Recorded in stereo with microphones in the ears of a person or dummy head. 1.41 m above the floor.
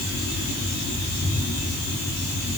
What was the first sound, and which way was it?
Only background noise.